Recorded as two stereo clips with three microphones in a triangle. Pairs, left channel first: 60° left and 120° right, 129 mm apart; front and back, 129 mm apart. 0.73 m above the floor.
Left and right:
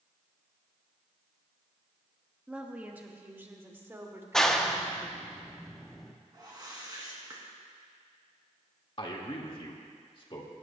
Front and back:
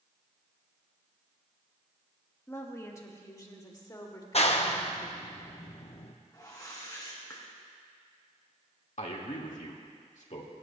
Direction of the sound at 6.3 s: 60° right.